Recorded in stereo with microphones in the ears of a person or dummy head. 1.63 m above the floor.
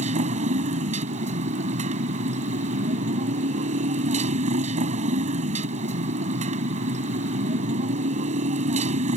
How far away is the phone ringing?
I don't hear a phone ringing.